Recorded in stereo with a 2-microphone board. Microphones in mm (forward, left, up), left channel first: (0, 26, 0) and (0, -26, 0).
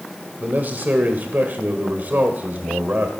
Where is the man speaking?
40° right (ahead or behind), 1.9 m.